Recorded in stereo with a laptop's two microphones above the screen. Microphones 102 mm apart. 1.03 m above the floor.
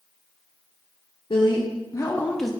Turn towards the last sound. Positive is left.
turn(degrees=0)  # may be behind; listen again after turning